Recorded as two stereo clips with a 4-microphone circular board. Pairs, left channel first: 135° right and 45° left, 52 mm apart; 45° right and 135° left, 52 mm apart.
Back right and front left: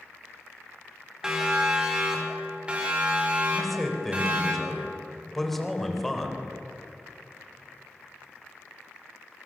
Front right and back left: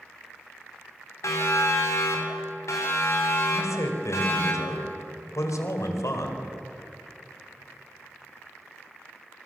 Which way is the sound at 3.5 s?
50° right.